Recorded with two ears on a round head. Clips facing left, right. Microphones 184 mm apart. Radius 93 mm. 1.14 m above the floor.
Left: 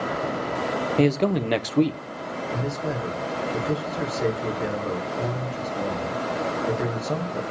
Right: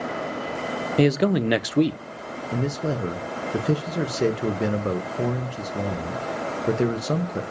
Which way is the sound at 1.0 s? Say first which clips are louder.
Right 2 dB; 10° right (ahead or behind).